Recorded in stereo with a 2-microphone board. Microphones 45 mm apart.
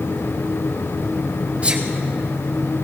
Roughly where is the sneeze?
Right.